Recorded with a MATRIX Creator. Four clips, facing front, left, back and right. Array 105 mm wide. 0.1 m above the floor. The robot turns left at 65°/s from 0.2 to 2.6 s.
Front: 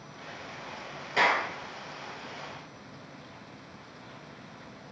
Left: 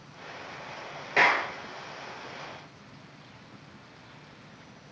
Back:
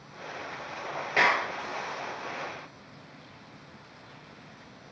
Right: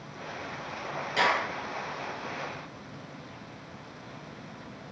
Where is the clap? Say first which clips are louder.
Left 2 dB, even; 125° left, 1.8 m; by 1.5 s 105° left, 1.8 m.